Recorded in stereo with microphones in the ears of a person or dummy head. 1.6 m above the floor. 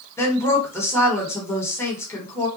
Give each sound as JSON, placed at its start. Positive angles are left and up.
{"t": 0.2, "sound": "a woman speaking", "side_deg": 15, "distance_m": 1.2}